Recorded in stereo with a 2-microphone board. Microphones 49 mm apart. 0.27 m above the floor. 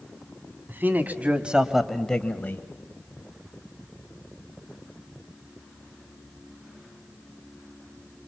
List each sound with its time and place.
0.7 s a man speaking: 45° right (ahead or behind), 2.0 m; by 2.6 s 40° left (ahead or behind), 1.3 m